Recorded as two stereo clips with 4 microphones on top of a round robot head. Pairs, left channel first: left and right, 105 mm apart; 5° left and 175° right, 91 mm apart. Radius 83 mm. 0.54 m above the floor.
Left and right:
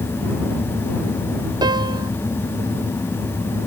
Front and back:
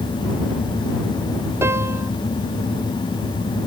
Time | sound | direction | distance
1.6 | a piano | 120° right | ?